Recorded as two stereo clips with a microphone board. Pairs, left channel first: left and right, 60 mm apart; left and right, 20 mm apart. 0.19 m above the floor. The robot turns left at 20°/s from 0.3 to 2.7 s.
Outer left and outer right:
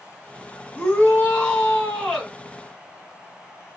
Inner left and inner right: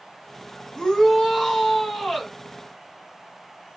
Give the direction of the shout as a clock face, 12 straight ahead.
11 o'clock.